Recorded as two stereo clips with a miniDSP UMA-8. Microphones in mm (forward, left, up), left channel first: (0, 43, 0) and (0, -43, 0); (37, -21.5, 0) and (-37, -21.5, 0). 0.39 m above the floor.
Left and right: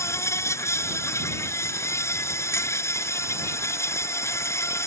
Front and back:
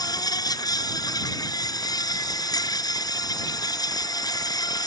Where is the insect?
30° left.